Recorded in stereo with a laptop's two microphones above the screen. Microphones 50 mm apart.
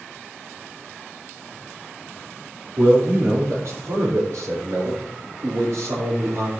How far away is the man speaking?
About 3.5 m.